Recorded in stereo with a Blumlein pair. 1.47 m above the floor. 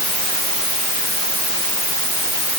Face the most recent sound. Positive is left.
No sound to turn to.